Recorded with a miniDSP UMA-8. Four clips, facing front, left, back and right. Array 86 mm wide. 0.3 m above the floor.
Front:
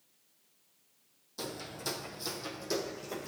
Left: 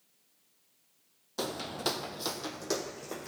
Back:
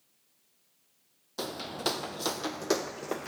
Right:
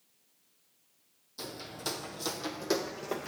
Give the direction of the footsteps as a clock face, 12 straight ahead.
8 o'clock.